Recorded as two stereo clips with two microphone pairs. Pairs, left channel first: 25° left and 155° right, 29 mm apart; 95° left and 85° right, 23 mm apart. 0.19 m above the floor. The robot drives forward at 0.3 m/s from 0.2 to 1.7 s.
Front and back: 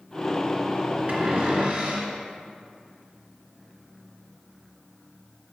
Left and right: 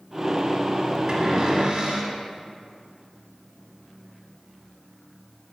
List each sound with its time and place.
1.1 s a cupboard door: 155° right, 2.5 m